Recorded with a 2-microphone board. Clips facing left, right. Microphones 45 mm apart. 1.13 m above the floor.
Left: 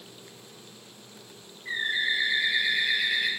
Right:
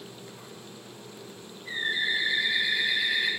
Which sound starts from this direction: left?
A bird, at 1.6 s.